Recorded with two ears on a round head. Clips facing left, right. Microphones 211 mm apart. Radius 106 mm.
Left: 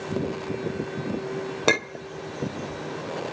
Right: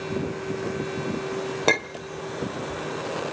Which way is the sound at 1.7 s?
10° left (ahead or behind).